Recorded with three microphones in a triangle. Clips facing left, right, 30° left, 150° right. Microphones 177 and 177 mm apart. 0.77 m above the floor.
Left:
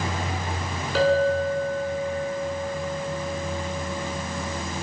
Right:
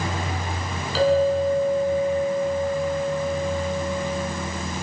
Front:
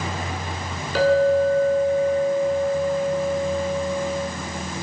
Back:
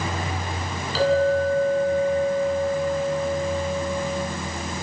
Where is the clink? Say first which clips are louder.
Right 2 dB, front 3 dB; 60° left, 5 m.